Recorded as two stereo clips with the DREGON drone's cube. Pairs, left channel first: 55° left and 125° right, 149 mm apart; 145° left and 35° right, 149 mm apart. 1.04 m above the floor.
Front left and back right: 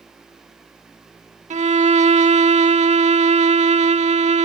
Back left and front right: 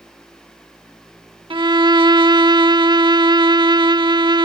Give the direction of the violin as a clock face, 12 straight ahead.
3 o'clock.